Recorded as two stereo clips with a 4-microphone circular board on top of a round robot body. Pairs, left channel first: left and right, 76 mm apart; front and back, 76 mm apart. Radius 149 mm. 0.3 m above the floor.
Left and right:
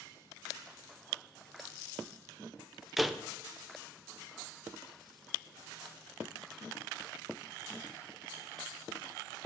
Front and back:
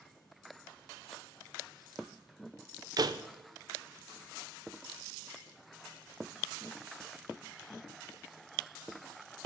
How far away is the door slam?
About 0.8 m.